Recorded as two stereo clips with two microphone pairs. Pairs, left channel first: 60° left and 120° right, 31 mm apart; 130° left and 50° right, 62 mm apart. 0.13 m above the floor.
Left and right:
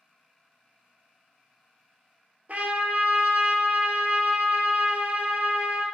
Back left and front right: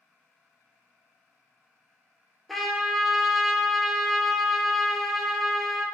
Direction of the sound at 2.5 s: 145° right.